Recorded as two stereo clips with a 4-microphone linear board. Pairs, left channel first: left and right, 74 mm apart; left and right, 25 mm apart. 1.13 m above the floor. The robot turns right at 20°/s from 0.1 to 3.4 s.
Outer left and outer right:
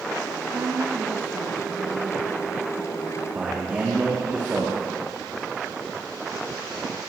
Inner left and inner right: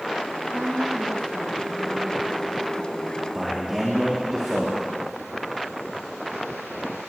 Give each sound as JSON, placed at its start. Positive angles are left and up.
{"t": 0.5, "sound": "a woman speaking", "azimuth_deg": -50, "distance_m": 1.3}
{"t": 3.3, "sound": "a man speaking", "side_deg": -20, "distance_m": 1.8}